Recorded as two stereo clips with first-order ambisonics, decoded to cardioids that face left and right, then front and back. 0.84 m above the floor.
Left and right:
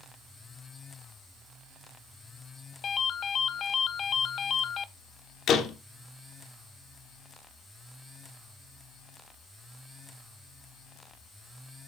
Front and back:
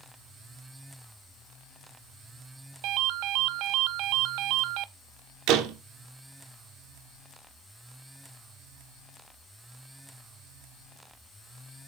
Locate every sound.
2.8 s a ringtone: 150° left, 0.7 m
5.5 s a door slam: 145° left, 1.5 m